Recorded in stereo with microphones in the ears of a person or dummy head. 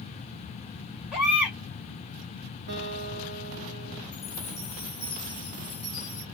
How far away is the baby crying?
About 3 m.